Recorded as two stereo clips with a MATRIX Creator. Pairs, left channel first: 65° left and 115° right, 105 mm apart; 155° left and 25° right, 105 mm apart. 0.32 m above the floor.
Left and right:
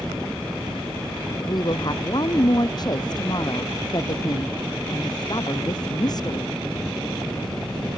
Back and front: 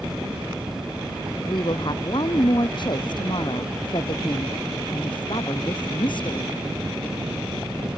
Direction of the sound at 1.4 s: 115° left.